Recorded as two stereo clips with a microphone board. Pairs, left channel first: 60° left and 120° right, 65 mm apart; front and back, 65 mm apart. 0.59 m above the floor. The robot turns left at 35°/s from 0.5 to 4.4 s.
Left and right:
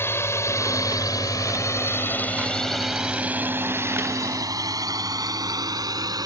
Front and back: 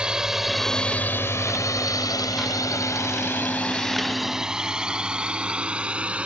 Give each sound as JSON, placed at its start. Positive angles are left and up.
{"t": 0.0, "sound": "a drone", "azimuth_deg": 105}